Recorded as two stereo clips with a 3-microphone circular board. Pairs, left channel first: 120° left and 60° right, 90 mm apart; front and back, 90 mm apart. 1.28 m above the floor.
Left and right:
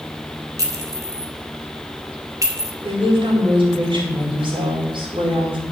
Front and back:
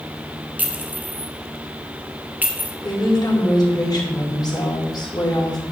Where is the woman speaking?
45° right, 4 m.